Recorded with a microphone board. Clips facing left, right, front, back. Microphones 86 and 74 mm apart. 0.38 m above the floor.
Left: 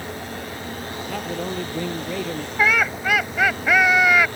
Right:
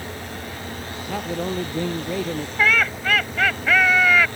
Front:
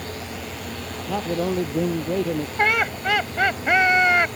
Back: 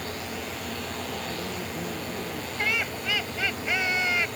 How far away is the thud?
I don't hear a thud.